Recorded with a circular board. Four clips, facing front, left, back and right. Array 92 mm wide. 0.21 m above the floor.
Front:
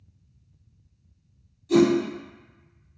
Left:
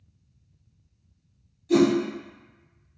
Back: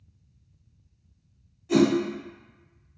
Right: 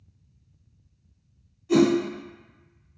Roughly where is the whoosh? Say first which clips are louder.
Even, front 2 dB; behind right.